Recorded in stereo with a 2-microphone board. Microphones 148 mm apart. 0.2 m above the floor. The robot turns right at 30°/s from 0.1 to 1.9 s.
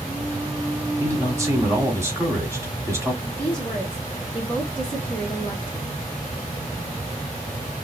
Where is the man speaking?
20° right (ahead or behind), 1.2 m.